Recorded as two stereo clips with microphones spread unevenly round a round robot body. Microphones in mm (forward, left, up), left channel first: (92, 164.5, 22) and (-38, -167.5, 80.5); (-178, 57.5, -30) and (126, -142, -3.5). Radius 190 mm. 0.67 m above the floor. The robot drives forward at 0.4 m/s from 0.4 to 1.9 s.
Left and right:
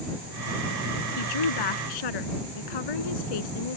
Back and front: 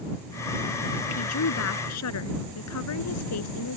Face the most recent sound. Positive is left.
turn(degrees=95)